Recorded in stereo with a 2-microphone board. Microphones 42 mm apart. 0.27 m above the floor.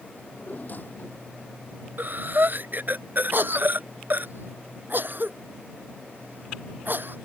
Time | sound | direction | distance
0.2 | a drawer | 45° left (ahead or behind) | ?
2.0 | breathing | 50° right (ahead or behind) | ?
3.3 | a cough | 55° right (ahead or behind) | ?